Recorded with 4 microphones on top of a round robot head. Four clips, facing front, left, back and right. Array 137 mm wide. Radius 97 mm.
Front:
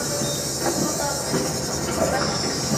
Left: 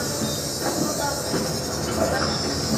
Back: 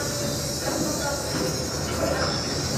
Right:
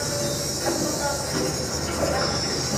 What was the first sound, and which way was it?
An insect, 40° left.